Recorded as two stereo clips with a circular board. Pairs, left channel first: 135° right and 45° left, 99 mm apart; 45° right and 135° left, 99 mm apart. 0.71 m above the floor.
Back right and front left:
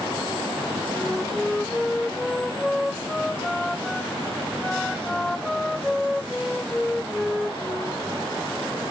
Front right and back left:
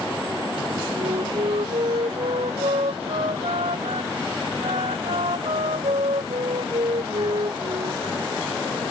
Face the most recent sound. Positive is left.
turn(degrees=140)